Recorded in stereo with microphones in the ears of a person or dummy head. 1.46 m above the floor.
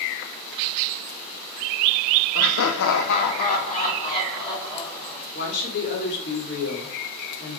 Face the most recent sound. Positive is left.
turn(degrees=60)  # may be behind; listen again after turning